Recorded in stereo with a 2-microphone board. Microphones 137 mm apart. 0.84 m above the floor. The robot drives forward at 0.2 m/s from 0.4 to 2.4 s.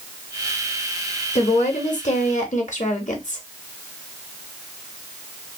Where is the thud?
I don't hear a thud.